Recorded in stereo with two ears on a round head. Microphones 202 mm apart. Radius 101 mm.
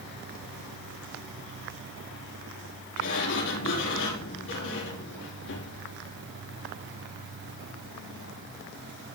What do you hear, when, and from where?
3.0 s a sliding door: 60° left (ahead or behind), 6.5 m